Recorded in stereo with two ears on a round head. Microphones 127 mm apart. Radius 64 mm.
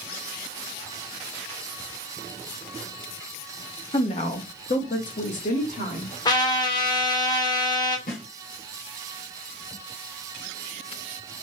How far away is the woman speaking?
About 0.6 m.